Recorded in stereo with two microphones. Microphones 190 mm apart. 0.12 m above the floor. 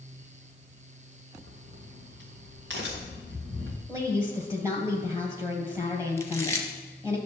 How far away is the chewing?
About 1.2 m.